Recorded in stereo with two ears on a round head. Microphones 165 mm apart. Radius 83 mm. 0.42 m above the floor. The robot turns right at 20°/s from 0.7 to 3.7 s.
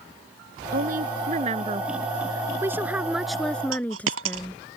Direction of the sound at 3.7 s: 75° right (ahead or behind).